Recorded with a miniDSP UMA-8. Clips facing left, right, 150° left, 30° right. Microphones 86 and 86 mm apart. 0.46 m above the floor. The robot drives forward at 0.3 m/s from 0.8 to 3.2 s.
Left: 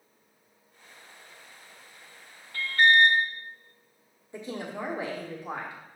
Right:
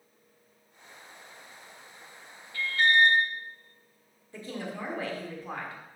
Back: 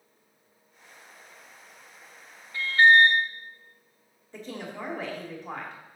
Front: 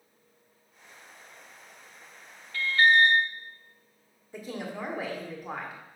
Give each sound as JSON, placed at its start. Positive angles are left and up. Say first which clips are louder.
{"t": 2.5, "sound": "an alarm", "louder": "left 3 dB, back 3 dB", "azimuth_deg": 80, "distance_m": 0.8}
{"t": 4.3, "sound": "a woman speaking", "louder": "left 2 dB, front 1 dB", "azimuth_deg": 40, "distance_m": 1.4}